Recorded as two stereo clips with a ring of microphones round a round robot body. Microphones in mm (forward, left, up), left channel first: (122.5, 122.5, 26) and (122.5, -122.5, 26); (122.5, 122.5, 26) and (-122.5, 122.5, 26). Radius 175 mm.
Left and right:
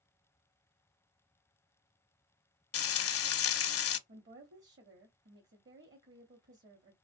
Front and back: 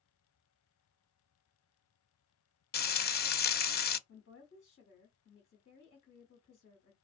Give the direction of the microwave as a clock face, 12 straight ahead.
I don't hear a microwave.